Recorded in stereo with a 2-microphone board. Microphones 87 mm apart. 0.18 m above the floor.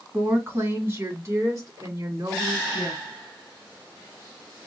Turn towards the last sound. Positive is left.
turn(degrees=-40)  # may be behind; listen again after turning